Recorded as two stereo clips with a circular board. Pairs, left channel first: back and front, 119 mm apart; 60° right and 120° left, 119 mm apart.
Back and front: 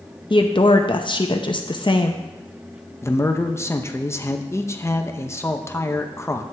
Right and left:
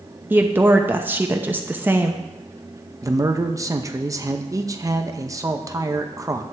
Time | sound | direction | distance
0.3 | a woman speaking | 175° right | 0.7 m
3.0 | a man speaking | 140° left | 0.7 m